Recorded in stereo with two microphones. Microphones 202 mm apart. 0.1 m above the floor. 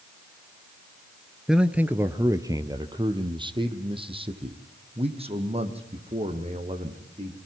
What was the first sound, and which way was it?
A man speaking, centre (ahead or behind).